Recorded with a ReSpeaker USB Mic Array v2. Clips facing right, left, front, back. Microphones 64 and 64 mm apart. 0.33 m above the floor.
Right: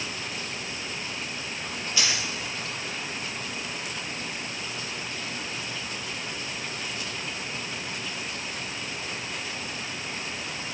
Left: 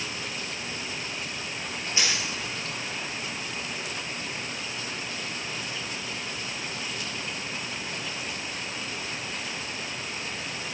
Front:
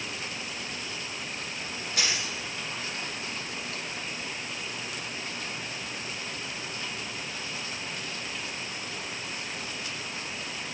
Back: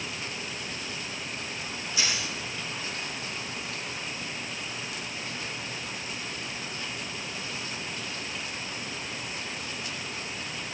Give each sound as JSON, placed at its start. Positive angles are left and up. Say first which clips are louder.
{"t": 2.0, "sound": "a dropped coin", "louder": "even, even", "azimuth_deg": 30, "distance_m": 4.0}